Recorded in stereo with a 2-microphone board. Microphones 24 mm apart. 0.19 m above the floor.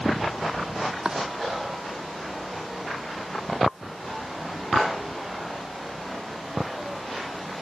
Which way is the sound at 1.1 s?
40° right (ahead or behind).